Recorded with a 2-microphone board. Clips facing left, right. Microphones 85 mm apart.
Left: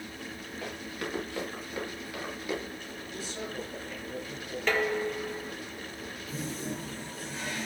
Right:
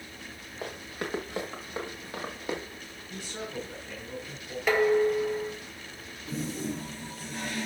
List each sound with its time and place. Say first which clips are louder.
0.6 s running footsteps: right 2 dB; 25° right (ahead or behind), 4.5 m; by 2.6 s 35° right (ahead or behind), 6 m
3.1 s a man speaking: right 1 dB; 55° right (ahead or behind), 7.5 m
4.7 s dishes clattering: right 6 dB; 10° right (ahead or behind), 1.6 m
6.3 s a toilet flushing: right 4 dB; 70° right (ahead or behind), 7.5 m